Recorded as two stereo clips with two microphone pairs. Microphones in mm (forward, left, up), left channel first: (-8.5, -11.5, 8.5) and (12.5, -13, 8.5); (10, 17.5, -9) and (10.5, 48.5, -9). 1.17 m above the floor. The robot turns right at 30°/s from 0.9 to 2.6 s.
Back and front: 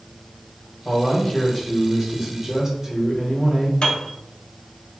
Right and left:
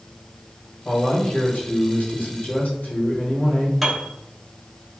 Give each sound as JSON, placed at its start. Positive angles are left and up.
{"t": 0.8, "sound": "a man speaking", "azimuth_deg": -130, "distance_m": 1.3}
{"t": 3.8, "sound": "a piano", "azimuth_deg": 165, "distance_m": 0.6}